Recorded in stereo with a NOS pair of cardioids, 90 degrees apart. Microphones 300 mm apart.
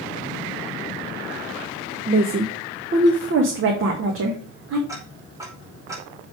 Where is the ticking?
10° right, 4.5 m.